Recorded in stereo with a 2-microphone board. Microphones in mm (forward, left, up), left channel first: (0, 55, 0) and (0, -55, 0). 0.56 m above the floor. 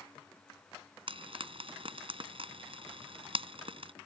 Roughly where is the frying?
Right.